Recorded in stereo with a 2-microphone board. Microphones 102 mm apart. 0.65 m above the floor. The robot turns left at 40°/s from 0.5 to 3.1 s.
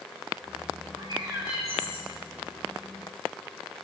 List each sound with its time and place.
1.0 s a bird: 130° right, 4 m; by 2.1 s 175° right, 4 m